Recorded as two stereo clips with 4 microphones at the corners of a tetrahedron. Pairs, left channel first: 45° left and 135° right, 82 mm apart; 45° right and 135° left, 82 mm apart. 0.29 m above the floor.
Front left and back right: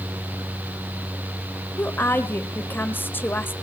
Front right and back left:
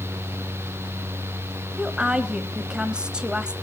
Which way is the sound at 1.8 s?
70° left.